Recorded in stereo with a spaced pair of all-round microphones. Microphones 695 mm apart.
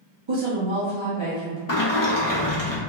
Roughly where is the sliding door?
Left.